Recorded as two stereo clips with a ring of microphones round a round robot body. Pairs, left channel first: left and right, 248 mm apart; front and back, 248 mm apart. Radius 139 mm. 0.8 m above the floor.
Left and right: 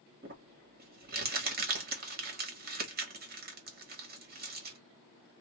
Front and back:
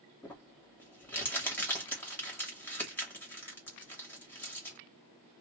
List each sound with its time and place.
0.2 s crumpling: 75° right, 1.1 m